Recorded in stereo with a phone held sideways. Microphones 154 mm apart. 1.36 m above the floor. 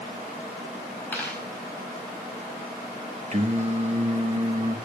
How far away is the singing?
About 1.1 m.